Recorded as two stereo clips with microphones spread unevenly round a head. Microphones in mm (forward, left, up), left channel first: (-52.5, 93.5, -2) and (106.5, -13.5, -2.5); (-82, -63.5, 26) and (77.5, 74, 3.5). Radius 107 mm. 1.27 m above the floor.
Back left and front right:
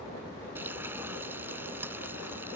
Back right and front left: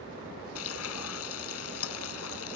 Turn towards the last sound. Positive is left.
turn(degrees=-115)